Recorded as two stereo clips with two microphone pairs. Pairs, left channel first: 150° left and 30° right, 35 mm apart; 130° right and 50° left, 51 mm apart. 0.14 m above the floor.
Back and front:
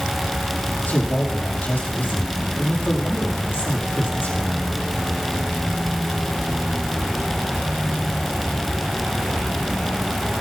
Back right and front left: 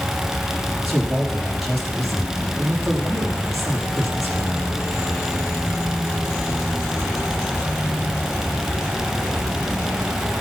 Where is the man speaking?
145° left, 4.5 m.